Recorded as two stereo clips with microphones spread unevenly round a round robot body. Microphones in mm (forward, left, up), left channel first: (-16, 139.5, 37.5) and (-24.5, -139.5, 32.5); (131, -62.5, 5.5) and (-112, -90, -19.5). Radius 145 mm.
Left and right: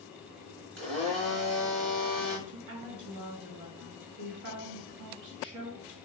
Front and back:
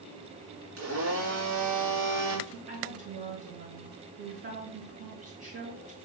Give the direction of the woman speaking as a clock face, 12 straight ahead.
4 o'clock.